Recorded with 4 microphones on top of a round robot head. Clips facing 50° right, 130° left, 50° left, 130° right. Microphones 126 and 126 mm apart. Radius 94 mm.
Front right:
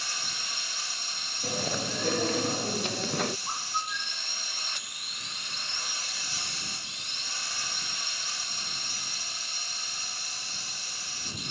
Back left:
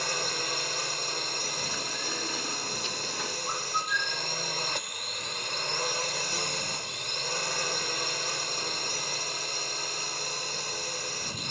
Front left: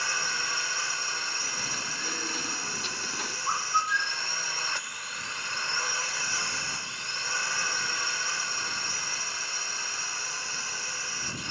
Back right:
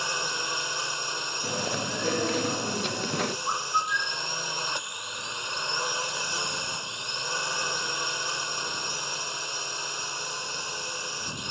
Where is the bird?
140° left.